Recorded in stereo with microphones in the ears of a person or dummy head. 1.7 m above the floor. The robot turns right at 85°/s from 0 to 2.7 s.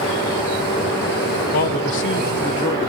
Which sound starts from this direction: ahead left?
A man speaking, at 1.5 s.